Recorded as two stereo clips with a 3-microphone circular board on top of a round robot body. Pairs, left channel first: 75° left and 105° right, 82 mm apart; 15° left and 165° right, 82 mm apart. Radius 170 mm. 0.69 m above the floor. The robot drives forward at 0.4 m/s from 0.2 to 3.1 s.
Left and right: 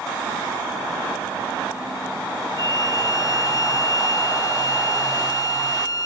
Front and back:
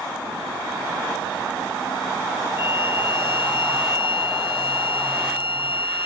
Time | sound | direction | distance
2.6 | a violin | 25° left | ?